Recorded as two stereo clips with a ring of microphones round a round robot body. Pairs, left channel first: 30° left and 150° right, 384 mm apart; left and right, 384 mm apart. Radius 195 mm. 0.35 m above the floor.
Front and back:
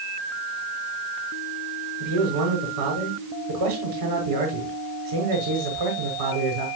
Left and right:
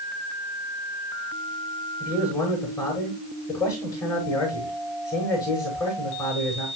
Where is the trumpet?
I don't hear a trumpet.